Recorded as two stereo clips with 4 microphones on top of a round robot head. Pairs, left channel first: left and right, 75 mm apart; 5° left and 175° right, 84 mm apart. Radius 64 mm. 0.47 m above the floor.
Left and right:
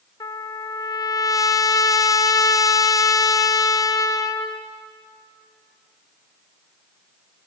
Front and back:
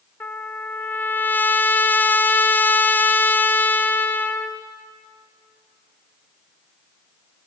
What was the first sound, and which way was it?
A trumpet, 70° left.